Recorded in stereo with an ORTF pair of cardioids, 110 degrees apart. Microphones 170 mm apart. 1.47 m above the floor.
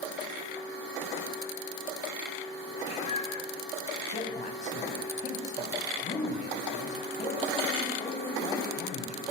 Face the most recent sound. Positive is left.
turn(degrees=45)